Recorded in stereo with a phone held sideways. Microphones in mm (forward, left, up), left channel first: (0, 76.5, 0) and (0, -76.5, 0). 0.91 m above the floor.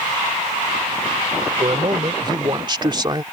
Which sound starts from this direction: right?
A man speaking, at 1.6 s.